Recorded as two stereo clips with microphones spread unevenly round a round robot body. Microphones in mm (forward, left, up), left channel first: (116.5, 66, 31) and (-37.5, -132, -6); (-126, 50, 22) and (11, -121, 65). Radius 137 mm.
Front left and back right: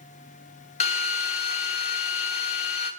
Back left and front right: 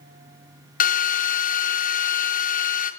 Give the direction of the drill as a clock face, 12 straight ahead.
8 o'clock.